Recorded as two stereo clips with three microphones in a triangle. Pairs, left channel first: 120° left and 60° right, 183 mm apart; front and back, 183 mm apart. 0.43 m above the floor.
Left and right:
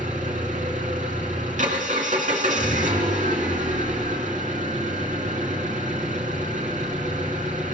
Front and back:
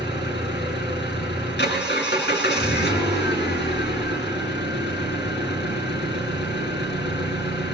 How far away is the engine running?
About 4.5 m.